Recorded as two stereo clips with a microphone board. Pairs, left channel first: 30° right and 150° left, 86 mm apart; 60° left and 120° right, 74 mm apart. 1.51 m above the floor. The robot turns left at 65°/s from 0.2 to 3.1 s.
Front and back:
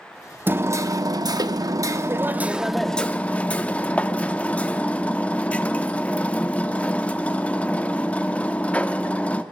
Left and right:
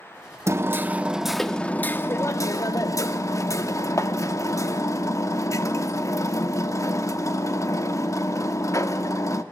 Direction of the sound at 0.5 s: 150° right.